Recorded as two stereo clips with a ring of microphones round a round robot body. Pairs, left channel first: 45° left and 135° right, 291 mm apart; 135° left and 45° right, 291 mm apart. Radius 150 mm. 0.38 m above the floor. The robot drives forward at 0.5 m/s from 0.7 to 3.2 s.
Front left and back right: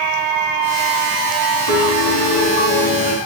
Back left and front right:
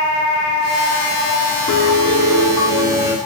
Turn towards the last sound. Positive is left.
turn(degrees=55)